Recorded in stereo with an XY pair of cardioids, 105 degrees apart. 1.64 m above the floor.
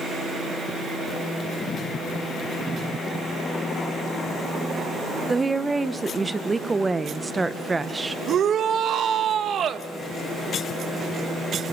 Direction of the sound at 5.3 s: 20° right.